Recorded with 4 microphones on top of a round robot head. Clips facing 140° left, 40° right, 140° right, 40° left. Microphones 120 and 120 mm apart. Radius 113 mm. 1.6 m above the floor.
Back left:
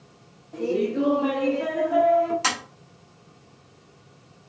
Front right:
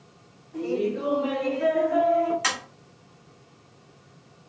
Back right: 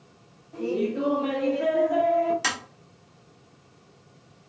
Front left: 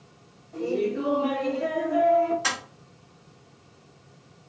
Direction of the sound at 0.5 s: 130° left.